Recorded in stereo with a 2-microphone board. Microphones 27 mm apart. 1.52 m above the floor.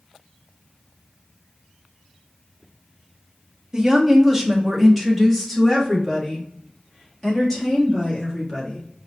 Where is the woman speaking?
25° right (ahead or behind), 0.9 m; by 8.8 s 20° left (ahead or behind), 3 m.